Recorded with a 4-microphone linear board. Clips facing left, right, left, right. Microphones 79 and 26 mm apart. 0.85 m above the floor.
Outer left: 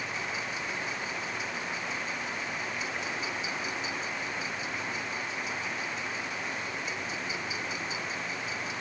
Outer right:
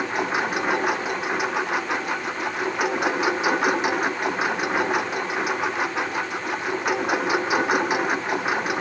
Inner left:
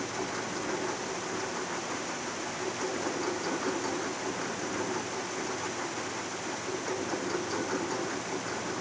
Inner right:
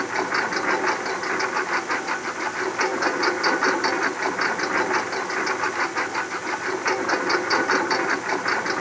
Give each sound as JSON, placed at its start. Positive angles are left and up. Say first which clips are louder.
{"t": 0.0, "sound": "a lawn mower", "louder": "outer right 12 dB, inner right 11 dB", "side_deg": -70}